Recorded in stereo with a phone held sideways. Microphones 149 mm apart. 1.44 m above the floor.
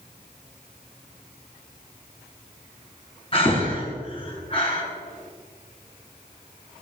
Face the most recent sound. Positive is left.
turn(degrees=35)  # may be behind; listen again after turning